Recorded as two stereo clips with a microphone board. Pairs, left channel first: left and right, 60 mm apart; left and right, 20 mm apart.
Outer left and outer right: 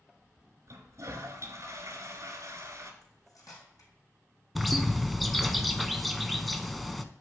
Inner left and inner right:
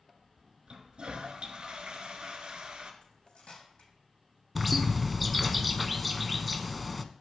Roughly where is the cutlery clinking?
Left.